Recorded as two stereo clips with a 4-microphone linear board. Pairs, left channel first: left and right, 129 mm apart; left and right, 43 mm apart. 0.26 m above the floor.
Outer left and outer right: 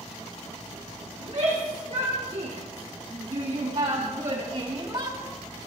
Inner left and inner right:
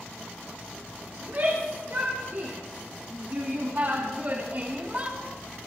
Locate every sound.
1.2 s a shout: 65° right (ahead or behind), 5 m; by 5.2 s 30° right (ahead or behind), 1.3 m